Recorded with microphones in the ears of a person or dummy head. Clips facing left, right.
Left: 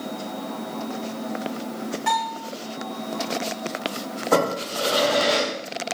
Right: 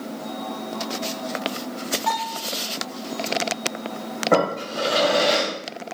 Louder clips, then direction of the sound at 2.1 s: Left 3 dB; 15° left (ahead or behind).